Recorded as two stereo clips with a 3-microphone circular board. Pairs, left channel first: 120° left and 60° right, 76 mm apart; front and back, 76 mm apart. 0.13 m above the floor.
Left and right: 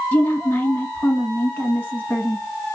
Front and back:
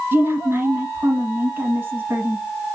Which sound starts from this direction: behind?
A woman speaking, at 0.1 s.